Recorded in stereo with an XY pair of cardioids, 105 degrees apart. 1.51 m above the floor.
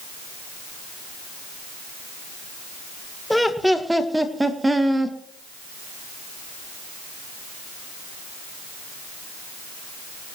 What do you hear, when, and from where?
3.3 s laughter: 5° left, 1.6 m; by 5.2 s 20° right, 2 m